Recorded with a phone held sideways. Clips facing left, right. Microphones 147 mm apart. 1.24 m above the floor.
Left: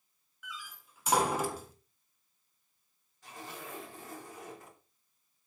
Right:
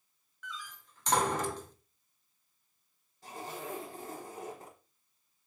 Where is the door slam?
10° left (ahead or behind), 1.8 m.